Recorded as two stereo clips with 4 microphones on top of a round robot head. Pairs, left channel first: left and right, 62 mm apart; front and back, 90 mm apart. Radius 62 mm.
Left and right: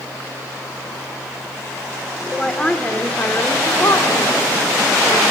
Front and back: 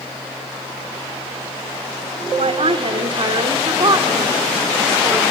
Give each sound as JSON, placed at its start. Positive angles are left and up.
{"t": 2.4, "sound": "a woman speaking", "azimuth_deg": 175, "distance_m": 2.5}